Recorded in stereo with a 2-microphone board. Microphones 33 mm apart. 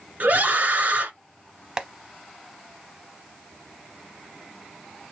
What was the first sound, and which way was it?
A scream, 55° right (ahead or behind).